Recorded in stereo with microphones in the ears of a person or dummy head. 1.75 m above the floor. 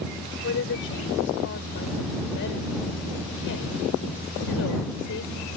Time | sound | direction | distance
0.4 | a woman speaking | 70° left (ahead or behind) | ?